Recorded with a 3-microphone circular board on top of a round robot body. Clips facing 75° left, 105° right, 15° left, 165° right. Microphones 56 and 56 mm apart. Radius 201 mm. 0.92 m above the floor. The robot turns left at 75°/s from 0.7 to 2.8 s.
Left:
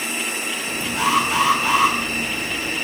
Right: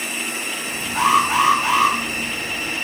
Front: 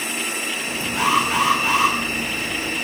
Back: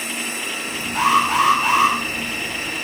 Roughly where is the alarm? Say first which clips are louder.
Right 3 dB, back 3 dB; behind right.